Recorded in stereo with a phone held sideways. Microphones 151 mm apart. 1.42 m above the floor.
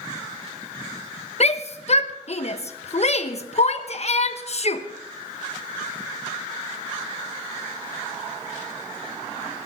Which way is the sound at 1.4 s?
50° left (ahead or behind).